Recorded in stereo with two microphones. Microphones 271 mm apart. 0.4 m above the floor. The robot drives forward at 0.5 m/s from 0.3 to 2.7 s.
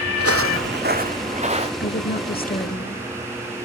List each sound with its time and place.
0.2 s footsteps: 60° right (ahead or behind), 0.7 m; by 1.7 s 20° right (ahead or behind), 2 m
1.8 s a woman speaking: 40° left (ahead or behind), 1.1 m; by 3.6 s 30° left (ahead or behind), 1.4 m